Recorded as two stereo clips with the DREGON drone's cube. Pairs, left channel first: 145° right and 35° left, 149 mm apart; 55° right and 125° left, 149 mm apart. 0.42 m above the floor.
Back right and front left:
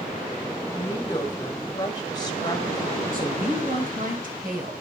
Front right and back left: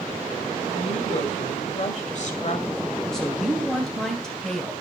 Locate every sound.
0.7 s a woman speaking: 85° right, 1.9 m
3.1 s a woman speaking: 30° left, 3 m